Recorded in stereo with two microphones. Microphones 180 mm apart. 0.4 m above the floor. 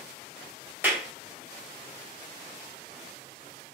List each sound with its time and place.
0.8 s a clap: 10° right (ahead or behind), 1.8 m